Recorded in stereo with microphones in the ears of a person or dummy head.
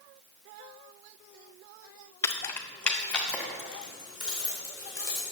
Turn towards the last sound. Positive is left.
turn(degrees=0)  # may be behind; listen again after turning